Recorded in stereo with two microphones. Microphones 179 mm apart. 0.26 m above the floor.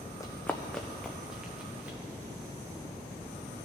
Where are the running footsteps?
15° left (ahead or behind), 0.7 m; by 2.0 s 5° right (ahead or behind), 1.6 m.